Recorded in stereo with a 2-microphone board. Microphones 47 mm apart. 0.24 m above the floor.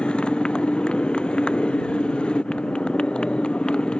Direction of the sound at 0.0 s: 20° left (ahead or behind).